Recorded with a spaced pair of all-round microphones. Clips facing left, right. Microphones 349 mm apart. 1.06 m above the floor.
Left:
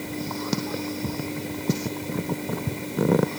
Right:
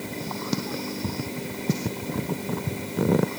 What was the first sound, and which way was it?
Only background noise.